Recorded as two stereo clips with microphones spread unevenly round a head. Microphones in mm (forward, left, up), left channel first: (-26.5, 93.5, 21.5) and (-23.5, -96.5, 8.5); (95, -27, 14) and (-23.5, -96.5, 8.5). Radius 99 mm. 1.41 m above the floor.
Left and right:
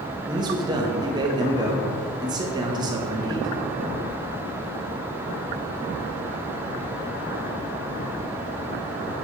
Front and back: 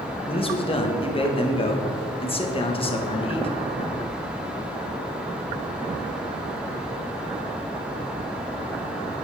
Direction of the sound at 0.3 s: 20° right.